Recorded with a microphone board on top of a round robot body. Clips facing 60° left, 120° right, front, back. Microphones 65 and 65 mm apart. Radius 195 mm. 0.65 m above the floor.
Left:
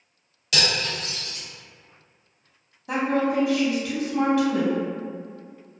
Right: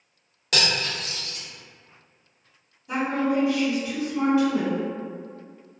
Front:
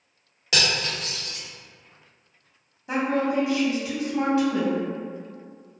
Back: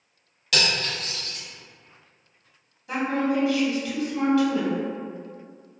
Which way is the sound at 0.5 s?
70° right.